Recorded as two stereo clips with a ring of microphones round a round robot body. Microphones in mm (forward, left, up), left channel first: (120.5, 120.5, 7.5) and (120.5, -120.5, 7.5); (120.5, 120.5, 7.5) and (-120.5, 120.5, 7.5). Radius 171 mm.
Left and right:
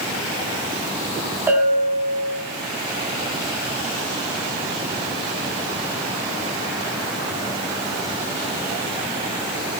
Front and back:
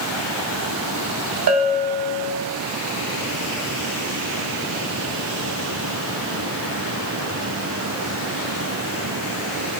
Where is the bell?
175° right, 1.7 m.